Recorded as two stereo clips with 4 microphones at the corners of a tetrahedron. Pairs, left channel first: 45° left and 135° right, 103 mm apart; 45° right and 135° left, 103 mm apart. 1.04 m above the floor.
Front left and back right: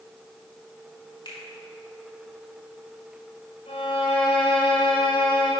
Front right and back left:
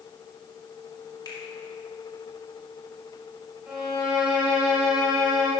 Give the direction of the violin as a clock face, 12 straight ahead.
10 o'clock.